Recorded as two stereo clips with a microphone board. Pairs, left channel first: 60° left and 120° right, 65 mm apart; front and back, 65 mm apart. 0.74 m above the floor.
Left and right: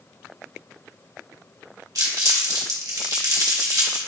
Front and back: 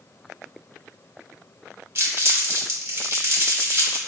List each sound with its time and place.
1.9 s crumpling: 130° right, 1.1 m